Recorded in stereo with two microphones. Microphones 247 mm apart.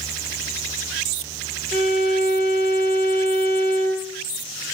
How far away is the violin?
About 4.5 m.